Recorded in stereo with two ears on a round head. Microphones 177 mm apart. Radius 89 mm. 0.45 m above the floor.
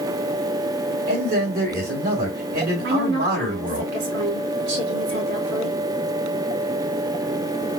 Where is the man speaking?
45° right (ahead or behind), 2.5 m.